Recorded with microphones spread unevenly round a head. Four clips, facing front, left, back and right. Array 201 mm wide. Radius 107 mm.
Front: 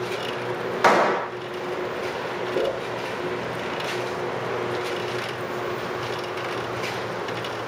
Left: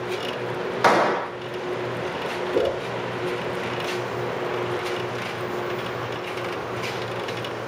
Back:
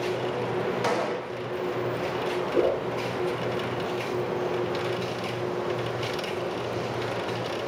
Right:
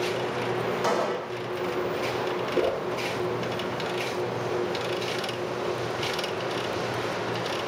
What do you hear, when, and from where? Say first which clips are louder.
0.8 s a gunshot: left 12 dB, front 8 dB; 50° left, 0.7 m
2.5 s a whoosh: left 3 dB, back 2 dB; 120° left, 5.5 m